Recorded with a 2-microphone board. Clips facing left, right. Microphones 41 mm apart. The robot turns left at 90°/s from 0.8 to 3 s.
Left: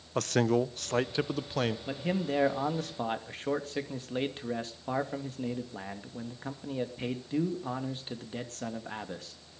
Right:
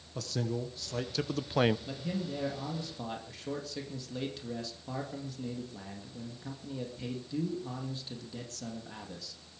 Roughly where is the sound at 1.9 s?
Behind left.